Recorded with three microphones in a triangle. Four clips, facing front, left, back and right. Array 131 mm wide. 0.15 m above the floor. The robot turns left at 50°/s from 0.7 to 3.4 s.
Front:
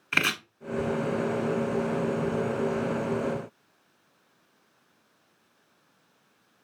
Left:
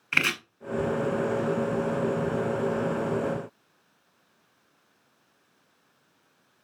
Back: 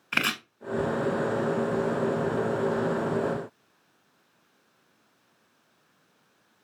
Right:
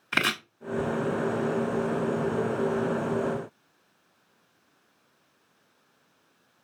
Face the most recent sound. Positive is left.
turn(degrees=125)